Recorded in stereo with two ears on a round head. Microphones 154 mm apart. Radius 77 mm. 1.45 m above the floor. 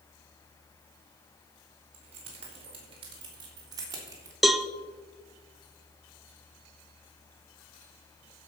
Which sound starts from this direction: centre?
A cowbell, at 4.4 s.